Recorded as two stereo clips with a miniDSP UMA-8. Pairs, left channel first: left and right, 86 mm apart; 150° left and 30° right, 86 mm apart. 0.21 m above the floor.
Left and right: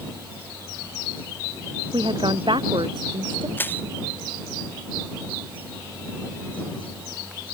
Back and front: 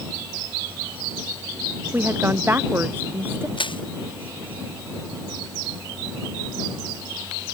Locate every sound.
1.9 s a woman speaking: 95° right
3.6 s crushing: 155° left